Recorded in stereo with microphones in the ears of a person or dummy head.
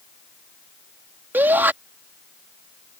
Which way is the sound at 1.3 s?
15° right (ahead or behind).